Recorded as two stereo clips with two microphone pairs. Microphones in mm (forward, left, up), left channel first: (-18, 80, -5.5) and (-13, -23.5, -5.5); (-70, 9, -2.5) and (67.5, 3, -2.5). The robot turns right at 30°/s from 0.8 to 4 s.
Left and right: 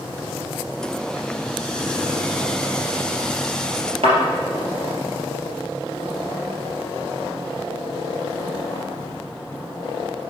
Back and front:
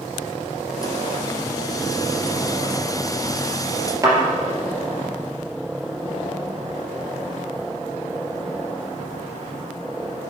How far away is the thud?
About 3 m.